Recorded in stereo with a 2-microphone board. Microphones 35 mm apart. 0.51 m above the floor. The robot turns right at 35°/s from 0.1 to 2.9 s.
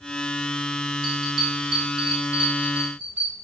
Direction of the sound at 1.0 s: Centre (ahead or behind).